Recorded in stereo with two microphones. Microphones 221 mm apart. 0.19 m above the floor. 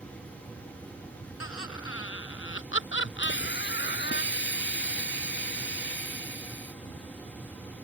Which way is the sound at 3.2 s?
60° left (ahead or behind).